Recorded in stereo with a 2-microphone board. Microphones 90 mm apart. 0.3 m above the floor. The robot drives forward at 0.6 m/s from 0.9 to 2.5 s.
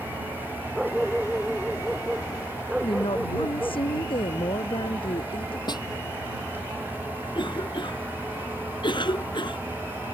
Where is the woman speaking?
85° left.